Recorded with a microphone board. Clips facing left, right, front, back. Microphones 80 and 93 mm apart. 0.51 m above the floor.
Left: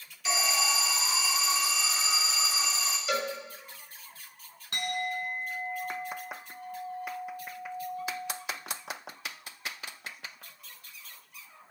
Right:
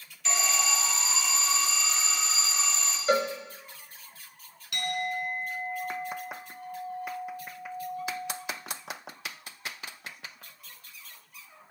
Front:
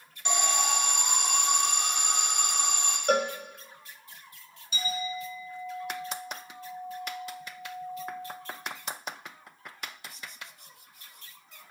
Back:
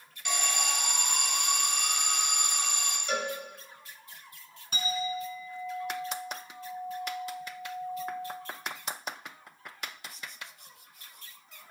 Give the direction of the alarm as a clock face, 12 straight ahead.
11 o'clock.